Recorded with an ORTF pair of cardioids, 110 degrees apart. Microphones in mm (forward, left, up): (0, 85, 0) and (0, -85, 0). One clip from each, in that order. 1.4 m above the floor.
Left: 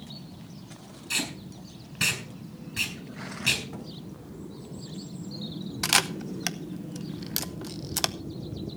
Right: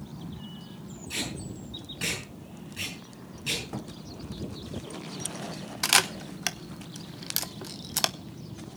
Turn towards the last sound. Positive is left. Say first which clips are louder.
# right 1 dB
turn(degrees=-5)